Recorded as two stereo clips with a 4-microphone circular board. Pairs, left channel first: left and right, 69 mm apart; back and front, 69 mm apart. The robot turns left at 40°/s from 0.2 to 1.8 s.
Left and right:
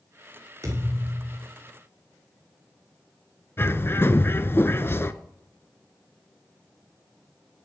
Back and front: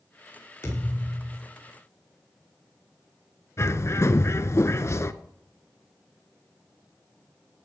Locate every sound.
0.6 s a thud: 135° right, 8.5 m; by 1.4 s 165° right, 8.5 m
3.6 s a bird: 140° left, 0.7 m